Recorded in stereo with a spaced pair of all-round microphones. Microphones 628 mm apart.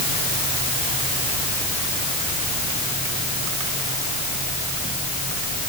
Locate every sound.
Only background noise.